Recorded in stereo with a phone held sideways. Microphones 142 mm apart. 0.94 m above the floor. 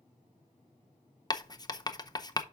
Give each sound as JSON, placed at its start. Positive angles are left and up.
{"t": 1.3, "sound": "writing", "side_deg": 30, "distance_m": 0.6}